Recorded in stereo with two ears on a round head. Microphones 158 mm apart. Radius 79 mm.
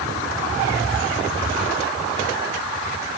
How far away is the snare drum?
I don't hear a snare drum.